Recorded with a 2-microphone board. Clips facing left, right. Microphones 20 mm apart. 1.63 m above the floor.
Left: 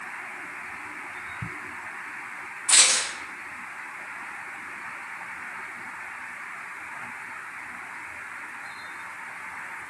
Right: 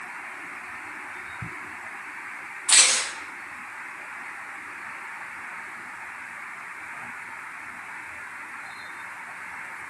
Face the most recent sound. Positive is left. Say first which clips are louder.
# right 1 dB
turn(degrees=-65)  # may be behind; listen again after turning